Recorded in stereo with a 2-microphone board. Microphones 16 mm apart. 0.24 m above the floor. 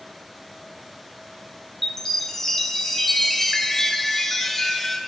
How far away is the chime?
About 0.7 m.